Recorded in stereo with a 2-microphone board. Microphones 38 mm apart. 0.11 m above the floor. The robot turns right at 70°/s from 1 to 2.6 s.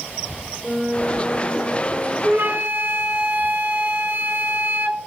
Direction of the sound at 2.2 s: 50° right (ahead or behind).